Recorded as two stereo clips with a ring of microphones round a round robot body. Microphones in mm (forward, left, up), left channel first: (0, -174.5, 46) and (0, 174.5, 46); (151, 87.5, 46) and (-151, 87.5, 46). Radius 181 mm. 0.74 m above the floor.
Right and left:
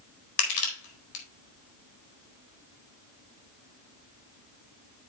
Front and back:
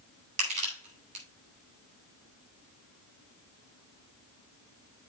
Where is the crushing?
110° right, 4 m.